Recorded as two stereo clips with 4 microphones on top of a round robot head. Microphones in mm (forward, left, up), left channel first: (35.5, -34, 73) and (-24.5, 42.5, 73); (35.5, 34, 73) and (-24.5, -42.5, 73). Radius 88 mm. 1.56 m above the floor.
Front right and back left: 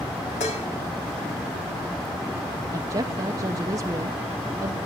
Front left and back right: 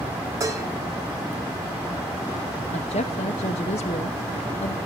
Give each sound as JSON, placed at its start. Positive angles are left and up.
{"t": 0.4, "sound": "dishes clattering", "azimuth_deg": -70, "distance_m": 2.5}
{"t": 2.7, "sound": "a woman speaking", "azimuth_deg": 70, "distance_m": 0.7}